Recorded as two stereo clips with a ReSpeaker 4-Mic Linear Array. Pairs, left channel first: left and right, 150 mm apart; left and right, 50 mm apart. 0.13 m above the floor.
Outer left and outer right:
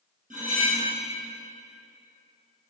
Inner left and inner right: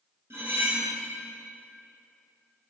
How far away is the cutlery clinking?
About 1.5 m.